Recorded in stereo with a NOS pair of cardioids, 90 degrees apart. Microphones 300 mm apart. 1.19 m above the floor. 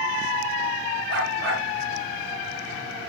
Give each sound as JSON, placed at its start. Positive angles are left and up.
{"t": 1.1, "sound": "a dog barking", "azimuth_deg": -50, "distance_m": 6.0}